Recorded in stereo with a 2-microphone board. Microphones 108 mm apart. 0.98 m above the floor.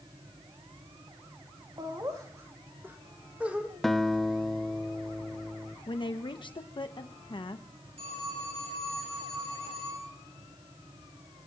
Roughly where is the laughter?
Right.